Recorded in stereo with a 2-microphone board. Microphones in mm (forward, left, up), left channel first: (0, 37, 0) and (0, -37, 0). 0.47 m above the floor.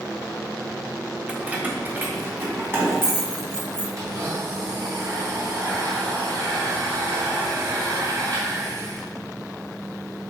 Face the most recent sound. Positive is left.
turn(degrees=-45)  # may be behind; listen again after turning